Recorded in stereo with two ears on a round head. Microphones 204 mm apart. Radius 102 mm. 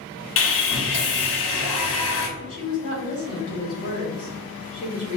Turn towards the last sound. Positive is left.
turn(degrees=35)  # may be behind; listen again after turning